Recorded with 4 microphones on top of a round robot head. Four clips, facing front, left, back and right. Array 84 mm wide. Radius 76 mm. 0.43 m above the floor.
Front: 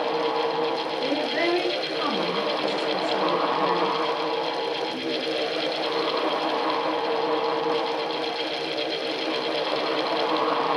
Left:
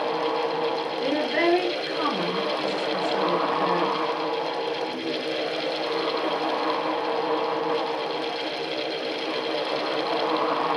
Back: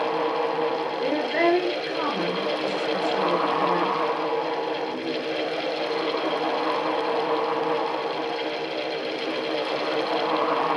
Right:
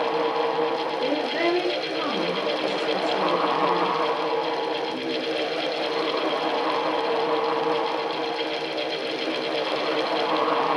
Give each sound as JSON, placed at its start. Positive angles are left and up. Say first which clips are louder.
{"t": 1.0, "sound": "a woman speaking", "louder": "left 3 dB, back 4 dB", "azimuth_deg": 140, "distance_m": 3.0}